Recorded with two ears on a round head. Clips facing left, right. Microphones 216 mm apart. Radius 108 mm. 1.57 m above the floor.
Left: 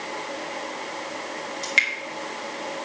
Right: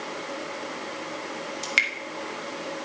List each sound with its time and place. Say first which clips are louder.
1.6 s dripping: left 1 dB; 15° right (ahead or behind), 1.4 m